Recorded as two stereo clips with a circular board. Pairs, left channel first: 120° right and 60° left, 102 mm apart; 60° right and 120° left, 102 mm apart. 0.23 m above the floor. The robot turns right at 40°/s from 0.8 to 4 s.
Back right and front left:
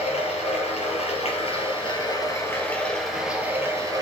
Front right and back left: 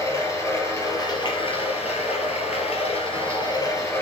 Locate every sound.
0.0 s running water: 120° right, 3.5 m; by 4.0 s 5° left, 3.5 m